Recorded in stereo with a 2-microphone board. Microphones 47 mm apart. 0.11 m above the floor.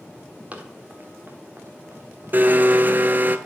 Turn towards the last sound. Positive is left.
turn(degrees=-40)  # may be behind; listen again after turning